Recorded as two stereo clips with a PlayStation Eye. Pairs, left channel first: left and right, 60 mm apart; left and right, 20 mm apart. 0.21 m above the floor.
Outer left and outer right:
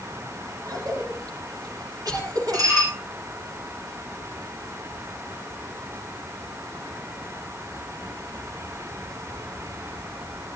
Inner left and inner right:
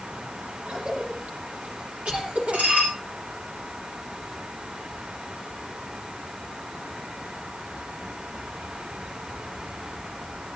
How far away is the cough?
About 9.5 m.